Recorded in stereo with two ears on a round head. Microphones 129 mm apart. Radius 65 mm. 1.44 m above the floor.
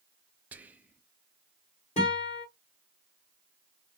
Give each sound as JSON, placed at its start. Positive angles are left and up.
{"t": 0.5, "sound": "whispering", "side_deg": -10, "distance_m": 0.6}
{"t": 2.0, "sound": "a guitar", "side_deg": 45, "distance_m": 1.9}